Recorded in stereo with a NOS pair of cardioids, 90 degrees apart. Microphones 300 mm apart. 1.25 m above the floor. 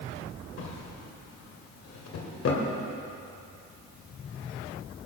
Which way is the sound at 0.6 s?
60° left.